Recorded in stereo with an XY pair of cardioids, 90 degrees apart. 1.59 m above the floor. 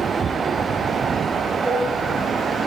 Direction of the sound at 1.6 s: 45° right.